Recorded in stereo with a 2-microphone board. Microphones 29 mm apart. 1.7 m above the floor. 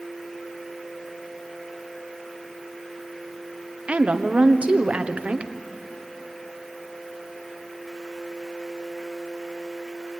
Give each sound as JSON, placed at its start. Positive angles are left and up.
{"t": 3.9, "sound": "a woman speaking", "side_deg": -45, "distance_m": 1.1}